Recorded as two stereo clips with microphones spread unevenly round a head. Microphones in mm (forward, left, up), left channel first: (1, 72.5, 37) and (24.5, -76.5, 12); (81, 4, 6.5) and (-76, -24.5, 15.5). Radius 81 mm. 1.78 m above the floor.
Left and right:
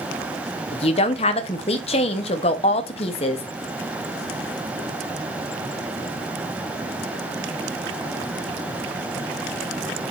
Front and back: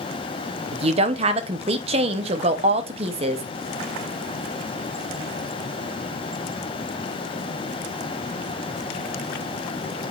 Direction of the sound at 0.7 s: 145° left.